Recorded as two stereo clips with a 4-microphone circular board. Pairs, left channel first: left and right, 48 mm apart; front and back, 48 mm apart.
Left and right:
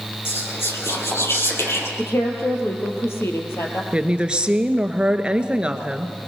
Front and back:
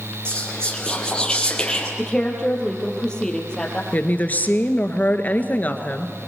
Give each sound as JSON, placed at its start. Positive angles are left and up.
{"t": 0.2, "sound": "whispering", "azimuth_deg": 75, "distance_m": 4.5}
{"t": 2.0, "sound": "a woman speaking", "azimuth_deg": 75, "distance_m": 3.5}
{"t": 3.9, "sound": "a woman speaking", "azimuth_deg": -30, "distance_m": 1.4}